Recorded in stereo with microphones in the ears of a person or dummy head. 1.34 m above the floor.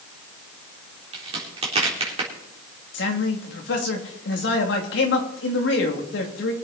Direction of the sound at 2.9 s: 65° left (ahead or behind).